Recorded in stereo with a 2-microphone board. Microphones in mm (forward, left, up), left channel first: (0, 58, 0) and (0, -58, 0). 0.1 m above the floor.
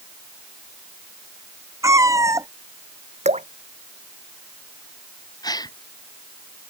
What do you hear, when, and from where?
1.8 s a cat meowing: 30° right (ahead or behind)
3.2 s dripping: 75° right (ahead or behind)
5.4 s a gasp: 35° left (ahead or behind)